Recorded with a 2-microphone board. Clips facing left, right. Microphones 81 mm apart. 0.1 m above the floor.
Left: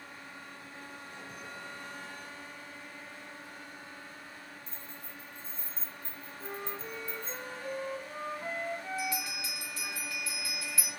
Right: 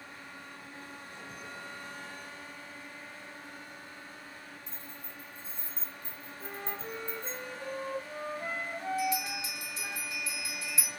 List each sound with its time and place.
4.7 s keys jangling: 5° right (ahead or behind), 1.6 m; by 7.4 s 30° right (ahead or behind), 1.0 m
6.4 s a flute: 35° right (ahead or behind), 2.5 m
9.0 s a bell: 20° right (ahead or behind), 2.5 m